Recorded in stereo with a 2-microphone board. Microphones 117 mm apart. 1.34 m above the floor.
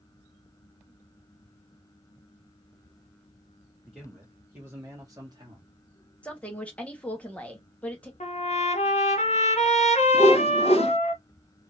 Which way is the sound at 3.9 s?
5° right (ahead or behind).